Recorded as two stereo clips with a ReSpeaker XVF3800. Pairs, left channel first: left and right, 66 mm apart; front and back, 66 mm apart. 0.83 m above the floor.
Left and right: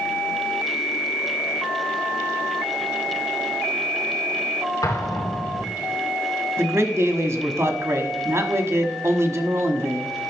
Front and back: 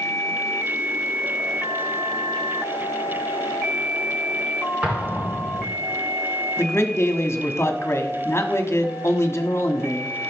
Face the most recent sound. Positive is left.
turn(degrees=-50)